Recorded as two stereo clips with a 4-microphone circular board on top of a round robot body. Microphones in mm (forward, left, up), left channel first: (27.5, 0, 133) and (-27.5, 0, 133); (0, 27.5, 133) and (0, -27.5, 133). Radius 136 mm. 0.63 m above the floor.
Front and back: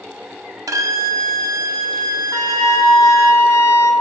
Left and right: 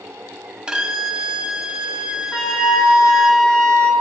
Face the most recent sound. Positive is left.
turn(degrees=20)